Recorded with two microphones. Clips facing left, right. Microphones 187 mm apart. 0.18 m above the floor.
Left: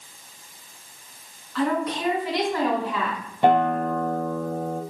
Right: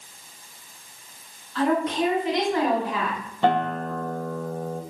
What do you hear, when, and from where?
1.6 s a woman speaking: 25° right (ahead or behind), 1.9 m; by 3.2 s 10° right (ahead or behind), 1.7 m
3.4 s a guitar: 10° left (ahead or behind), 1.0 m